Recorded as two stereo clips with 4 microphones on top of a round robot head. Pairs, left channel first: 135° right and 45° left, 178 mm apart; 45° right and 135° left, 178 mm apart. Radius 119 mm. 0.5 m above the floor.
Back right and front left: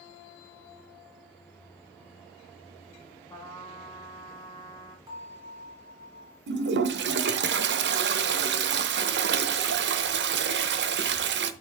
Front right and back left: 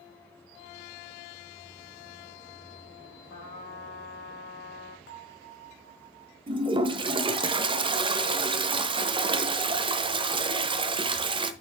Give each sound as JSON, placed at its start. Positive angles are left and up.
{"t": 3.3, "sound": "a trumpet", "azimuth_deg": -55, "distance_m": 5.0}
{"t": 5.1, "sound": "a bell", "azimuth_deg": -25, "distance_m": 4.0}
{"t": 6.5, "sound": "a toilet flushing", "azimuth_deg": 70, "distance_m": 0.8}